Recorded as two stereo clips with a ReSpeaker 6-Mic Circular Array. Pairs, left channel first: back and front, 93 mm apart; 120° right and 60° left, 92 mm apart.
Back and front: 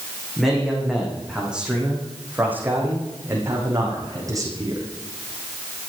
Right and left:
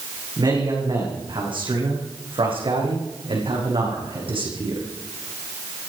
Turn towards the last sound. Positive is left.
turn(degrees=45)